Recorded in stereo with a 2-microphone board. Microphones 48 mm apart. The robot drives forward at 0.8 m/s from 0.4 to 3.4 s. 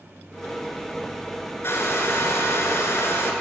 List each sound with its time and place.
1.6 s a hair dryer: 55° left (ahead or behind), 2.5 m